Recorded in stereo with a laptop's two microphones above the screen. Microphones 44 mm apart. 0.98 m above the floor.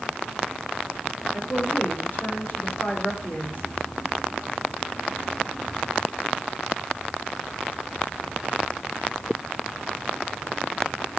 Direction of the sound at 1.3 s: 40° left (ahead or behind).